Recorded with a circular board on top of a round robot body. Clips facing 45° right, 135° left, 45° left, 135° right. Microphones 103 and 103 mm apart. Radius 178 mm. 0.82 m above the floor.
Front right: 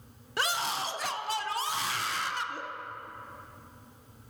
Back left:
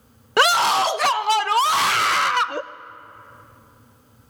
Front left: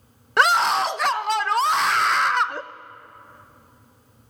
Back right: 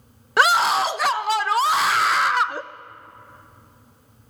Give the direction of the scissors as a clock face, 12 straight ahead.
I don't hear scissors.